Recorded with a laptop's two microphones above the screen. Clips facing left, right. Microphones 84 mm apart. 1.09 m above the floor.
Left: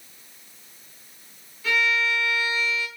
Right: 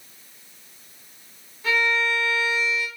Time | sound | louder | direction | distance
1.6 | a violin | right 1 dB | 40° right (ahead or behind) | 1.3 m